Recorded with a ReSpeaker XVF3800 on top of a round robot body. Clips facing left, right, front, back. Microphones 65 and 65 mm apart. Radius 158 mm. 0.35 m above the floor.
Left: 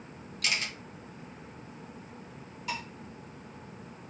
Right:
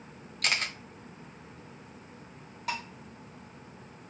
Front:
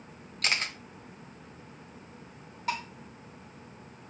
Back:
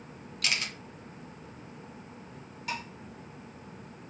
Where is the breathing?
No breathing in this recording.